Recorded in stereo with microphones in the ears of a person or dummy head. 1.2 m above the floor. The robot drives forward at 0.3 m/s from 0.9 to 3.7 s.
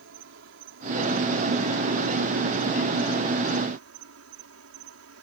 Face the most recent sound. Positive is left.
turn(degrees=-85)